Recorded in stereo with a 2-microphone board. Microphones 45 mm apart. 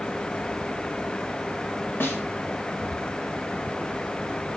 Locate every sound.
2.0 s a snare drum: 50° left (ahead or behind), 2 m